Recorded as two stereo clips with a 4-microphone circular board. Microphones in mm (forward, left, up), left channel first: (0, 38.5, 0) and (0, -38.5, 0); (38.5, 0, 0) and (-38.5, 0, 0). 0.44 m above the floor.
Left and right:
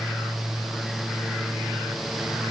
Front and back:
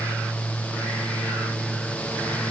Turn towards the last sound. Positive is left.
No sound to turn to.